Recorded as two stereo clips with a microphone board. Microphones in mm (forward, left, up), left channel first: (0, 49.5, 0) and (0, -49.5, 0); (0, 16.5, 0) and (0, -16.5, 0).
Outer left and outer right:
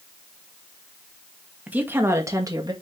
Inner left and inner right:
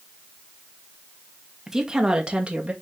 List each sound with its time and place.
1.7 s a woman speaking: 15° right (ahead or behind), 2.0 m; by 2.7 s 40° right (ahead or behind), 1.9 m